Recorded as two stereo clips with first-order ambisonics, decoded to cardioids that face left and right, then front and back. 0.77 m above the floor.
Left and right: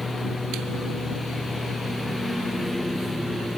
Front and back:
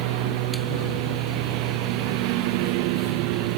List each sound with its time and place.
0.0 s a lawn mower: 175° left; by 3.6 s straight behind